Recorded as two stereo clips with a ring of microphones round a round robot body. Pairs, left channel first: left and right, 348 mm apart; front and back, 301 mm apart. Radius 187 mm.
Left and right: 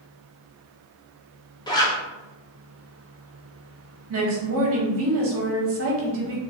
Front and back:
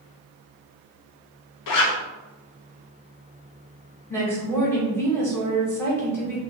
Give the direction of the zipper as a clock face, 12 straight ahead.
12 o'clock.